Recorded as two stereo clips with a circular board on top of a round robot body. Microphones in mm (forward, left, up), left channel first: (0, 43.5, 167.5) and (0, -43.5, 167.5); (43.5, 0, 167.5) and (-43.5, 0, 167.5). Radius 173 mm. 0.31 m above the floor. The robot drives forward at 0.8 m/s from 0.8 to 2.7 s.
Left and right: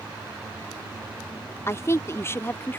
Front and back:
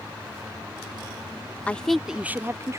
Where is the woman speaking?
60° left; by 2.8 s 145° left.